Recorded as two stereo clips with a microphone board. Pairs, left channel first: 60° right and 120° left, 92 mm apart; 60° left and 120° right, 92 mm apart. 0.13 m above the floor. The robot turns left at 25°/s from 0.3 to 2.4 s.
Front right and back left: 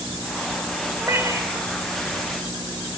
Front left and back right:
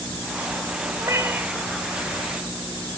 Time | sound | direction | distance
1.0 | a cat meowing | 175° right | 1.3 m